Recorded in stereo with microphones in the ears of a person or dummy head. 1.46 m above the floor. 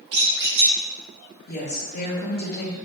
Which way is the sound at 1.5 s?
45° left (ahead or behind).